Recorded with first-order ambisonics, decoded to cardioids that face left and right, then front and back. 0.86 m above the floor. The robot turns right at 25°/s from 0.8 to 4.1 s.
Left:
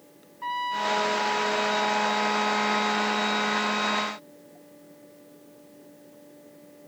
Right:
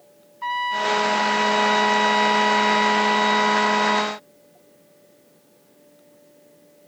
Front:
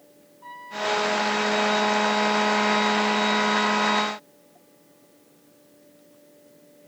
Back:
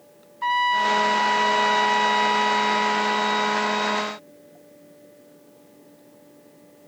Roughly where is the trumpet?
Behind.